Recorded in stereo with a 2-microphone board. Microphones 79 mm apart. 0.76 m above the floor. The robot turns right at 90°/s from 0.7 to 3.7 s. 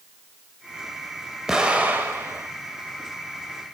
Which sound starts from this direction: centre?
An explosion, at 1.5 s.